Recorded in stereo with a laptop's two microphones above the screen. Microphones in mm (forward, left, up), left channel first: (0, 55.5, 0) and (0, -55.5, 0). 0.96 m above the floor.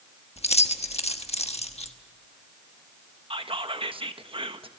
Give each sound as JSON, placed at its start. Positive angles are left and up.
{"t": 0.4, "sound": "keys jangling", "side_deg": 70, "distance_m": 1.2}
{"t": 3.3, "sound": "whispering", "side_deg": -50, "distance_m": 1.2}